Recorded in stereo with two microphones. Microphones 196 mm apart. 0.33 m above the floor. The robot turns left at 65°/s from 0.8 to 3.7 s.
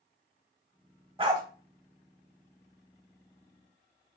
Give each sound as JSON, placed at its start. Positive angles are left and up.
{"t": 1.2, "sound": "a dog barking", "side_deg": -30, "distance_m": 0.7}